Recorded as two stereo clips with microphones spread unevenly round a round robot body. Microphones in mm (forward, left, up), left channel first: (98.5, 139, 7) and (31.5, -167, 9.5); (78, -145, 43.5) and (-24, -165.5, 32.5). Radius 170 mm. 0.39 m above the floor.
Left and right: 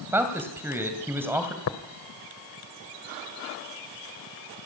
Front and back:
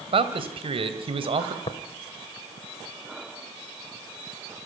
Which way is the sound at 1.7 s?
50° left.